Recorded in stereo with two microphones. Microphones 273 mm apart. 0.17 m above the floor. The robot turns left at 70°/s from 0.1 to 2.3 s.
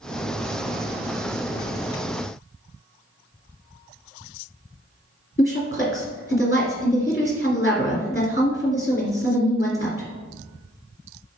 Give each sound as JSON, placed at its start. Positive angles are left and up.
{"t": 5.4, "sound": "a woman speaking", "side_deg": 35, "distance_m": 1.7}